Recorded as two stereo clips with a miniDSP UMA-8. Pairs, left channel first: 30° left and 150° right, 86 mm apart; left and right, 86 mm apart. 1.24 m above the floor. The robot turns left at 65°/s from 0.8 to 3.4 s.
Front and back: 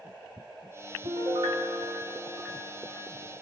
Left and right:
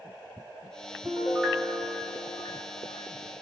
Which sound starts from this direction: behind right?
A piano, at 1.1 s.